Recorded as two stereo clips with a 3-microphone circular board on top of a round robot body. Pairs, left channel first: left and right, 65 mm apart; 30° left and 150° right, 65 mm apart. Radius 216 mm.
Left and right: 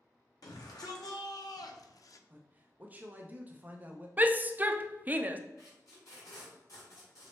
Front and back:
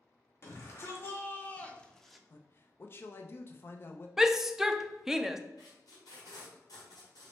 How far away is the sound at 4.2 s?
About 0.6 m.